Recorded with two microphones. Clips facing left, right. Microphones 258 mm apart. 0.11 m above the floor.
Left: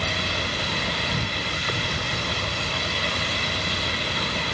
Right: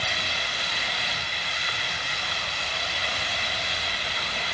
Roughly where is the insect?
Left.